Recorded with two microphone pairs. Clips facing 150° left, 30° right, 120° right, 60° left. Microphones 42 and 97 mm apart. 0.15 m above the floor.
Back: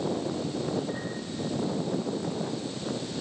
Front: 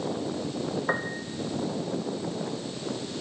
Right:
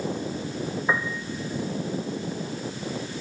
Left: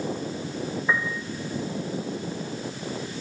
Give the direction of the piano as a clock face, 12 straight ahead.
2 o'clock.